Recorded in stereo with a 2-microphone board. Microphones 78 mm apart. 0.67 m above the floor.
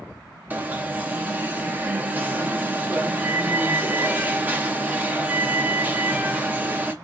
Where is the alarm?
25° right (ahead or behind), 0.6 m.